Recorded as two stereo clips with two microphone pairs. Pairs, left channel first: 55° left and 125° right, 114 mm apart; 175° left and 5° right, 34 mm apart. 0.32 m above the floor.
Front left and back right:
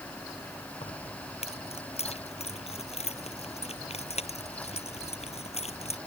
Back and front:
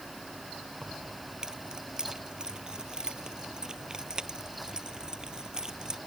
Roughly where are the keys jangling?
Ahead left.